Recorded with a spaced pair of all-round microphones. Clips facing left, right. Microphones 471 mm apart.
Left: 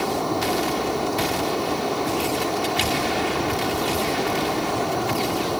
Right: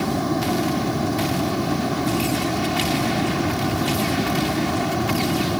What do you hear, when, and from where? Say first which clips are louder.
0.0 s running water: right 2 dB; 35° right (ahead or behind)